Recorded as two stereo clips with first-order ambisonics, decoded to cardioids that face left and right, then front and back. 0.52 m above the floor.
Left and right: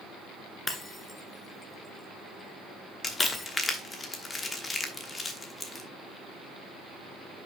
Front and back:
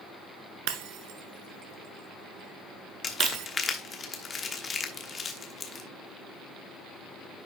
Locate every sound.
0.7 s breaking glass: 165° left, 1.2 m
3.0 s crumpling: 40° left, 1.2 m